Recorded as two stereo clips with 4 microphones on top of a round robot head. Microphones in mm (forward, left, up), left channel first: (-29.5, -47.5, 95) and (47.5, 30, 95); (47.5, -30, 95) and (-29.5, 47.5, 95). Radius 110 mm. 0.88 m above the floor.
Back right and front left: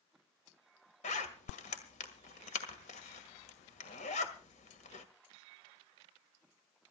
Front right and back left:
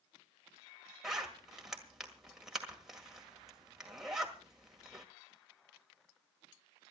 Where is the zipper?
140° right, 1.8 m.